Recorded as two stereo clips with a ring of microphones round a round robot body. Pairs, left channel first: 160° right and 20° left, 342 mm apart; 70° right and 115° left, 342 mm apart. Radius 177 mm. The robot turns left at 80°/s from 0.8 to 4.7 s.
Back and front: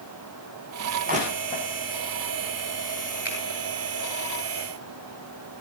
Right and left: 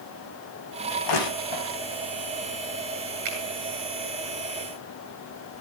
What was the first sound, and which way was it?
Crushing, 40° right.